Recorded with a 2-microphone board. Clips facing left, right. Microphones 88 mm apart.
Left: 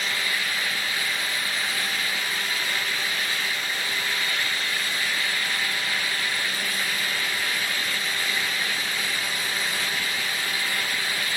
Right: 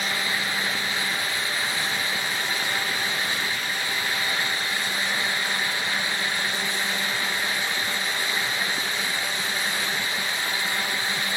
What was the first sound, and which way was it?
Only background noise.